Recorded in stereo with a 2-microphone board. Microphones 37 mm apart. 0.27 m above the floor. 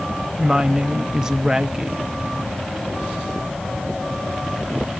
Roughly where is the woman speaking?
Centre.